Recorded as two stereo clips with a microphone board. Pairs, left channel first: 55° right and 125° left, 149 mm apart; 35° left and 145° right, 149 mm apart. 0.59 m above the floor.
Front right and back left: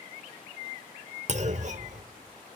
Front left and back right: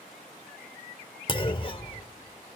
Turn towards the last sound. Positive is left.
turn(degrees=90)